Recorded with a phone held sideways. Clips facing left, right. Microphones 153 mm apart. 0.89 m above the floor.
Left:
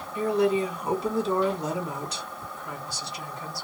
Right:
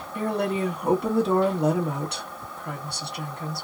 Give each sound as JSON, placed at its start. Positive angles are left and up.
{"t": 0.1, "sound": "a woman speaking", "side_deg": -60, "distance_m": 1.4}